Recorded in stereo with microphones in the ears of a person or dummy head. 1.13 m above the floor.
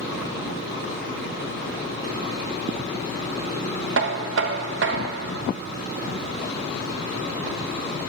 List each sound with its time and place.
4.0 s knocking: 55° right (ahead or behind), 0.7 m